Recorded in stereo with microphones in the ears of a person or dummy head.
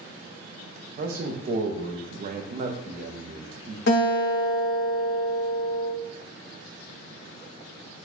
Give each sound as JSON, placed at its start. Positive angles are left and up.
{"t": 1.0, "sound": "a man speaking", "side_deg": -45, "distance_m": 0.6}
{"t": 3.9, "sound": "a guitar", "side_deg": 65, "distance_m": 1.0}